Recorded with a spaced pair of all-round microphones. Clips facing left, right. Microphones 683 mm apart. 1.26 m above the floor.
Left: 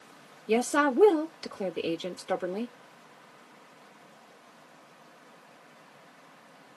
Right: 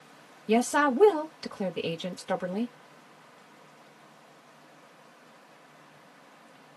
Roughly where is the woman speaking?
Right.